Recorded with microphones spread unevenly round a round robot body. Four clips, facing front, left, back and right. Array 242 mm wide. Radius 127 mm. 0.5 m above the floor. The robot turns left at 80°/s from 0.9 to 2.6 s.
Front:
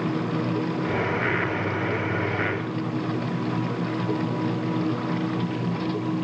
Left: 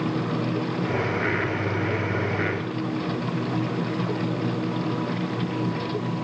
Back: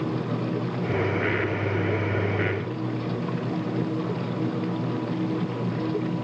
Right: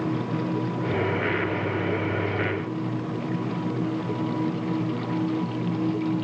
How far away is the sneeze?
I don't hear a sneeze.